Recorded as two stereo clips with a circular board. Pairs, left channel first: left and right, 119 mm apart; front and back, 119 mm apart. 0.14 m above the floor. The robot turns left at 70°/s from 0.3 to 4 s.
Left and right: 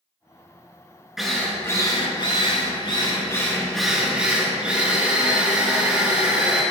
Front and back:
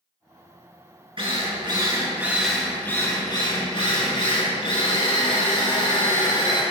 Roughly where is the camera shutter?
No camera shutter in this recording.